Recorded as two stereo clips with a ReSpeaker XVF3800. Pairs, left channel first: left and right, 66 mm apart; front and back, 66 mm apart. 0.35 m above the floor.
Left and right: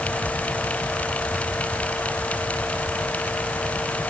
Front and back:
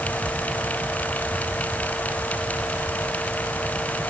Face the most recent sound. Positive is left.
No sound to turn to.